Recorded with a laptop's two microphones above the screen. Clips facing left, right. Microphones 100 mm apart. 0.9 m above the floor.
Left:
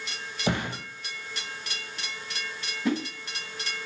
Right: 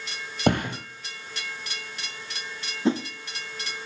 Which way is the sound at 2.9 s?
25° right (ahead or behind).